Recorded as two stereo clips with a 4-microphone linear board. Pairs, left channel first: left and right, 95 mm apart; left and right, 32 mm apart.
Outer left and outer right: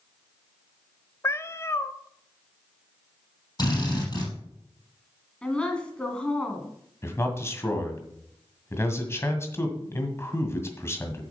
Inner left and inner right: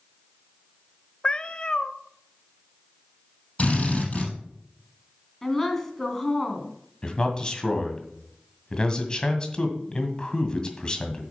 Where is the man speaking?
30° left (ahead or behind), 1.8 m.